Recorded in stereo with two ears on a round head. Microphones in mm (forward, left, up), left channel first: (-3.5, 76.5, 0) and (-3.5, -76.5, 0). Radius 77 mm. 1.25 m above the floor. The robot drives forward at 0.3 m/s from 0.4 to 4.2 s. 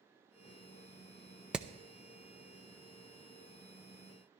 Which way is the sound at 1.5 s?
5° right (ahead or behind).